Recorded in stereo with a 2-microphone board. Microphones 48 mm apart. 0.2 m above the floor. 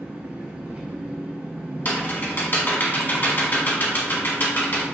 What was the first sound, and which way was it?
An engine running, 25° right (ahead or behind).